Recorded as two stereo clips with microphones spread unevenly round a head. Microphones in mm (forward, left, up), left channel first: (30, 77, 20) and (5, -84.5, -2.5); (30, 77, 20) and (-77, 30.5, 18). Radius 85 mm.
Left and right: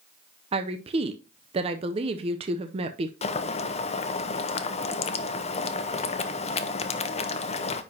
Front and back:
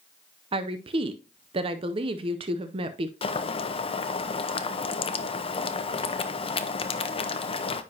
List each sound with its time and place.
0.5 s a woman speaking: 135° right, 0.5 m
3.2 s boiling: 35° left, 0.7 m